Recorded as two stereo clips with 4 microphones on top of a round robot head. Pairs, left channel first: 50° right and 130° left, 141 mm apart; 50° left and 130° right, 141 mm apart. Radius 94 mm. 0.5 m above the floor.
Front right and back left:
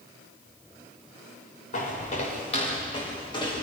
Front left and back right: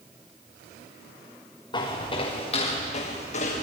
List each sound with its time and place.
1.7 s footsteps: 10° right, 4.5 m; by 3.6 s 10° left, 6 m